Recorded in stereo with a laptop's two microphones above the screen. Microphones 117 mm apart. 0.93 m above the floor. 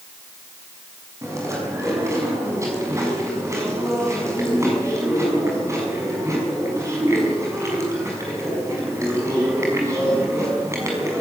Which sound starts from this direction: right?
Chewing, at 1.2 s.